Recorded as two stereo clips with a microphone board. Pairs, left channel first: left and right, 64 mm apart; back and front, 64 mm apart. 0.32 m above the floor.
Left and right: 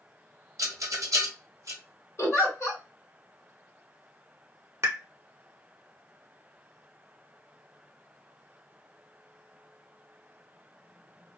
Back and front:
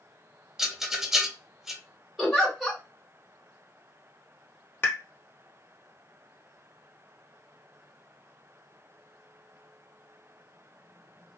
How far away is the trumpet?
I don't hear a trumpet.